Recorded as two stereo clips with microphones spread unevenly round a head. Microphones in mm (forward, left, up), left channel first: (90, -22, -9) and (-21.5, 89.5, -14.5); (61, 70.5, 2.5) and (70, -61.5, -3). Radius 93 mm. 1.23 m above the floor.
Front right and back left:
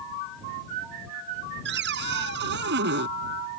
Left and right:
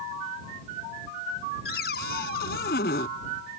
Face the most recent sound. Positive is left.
turn(degrees=130)